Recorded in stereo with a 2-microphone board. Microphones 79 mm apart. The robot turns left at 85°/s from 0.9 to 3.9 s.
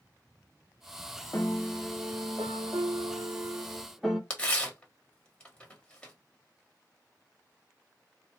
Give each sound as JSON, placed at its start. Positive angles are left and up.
{"t": 1.3, "sound": "a piano", "azimuth_deg": 40, "distance_m": 0.8}
{"t": 4.3, "sound": "tearing paper", "side_deg": 10, "distance_m": 1.7}